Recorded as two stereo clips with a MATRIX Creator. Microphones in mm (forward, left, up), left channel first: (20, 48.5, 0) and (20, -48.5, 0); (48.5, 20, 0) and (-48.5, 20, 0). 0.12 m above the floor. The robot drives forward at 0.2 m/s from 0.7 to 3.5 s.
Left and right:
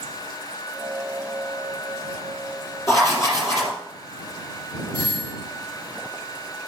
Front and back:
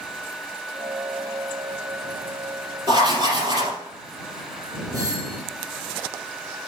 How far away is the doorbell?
About 4 m.